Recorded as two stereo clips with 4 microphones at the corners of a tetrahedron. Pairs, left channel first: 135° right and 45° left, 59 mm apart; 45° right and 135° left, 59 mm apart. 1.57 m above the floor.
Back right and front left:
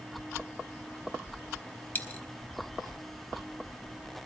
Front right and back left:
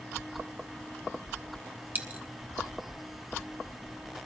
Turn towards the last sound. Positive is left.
turn(degrees=180)